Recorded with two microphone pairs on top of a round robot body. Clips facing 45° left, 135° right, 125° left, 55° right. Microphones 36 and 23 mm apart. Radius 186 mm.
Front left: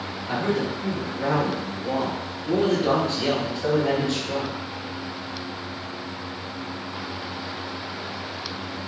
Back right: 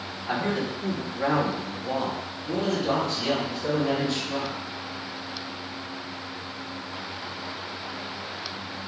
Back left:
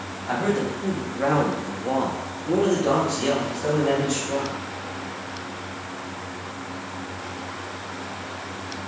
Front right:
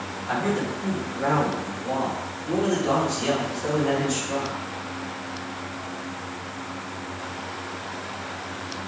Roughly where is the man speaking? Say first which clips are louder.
Front left 2 dB, back left 2 dB; behind.